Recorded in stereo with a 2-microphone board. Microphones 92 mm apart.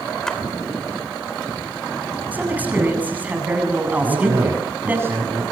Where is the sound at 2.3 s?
20° right (ahead or behind), 7.5 m.